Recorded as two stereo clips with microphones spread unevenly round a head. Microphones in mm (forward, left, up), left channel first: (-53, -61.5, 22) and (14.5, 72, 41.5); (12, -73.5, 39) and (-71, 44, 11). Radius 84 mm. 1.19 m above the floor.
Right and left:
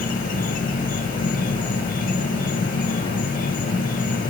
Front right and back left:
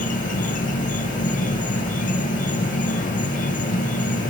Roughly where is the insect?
Right.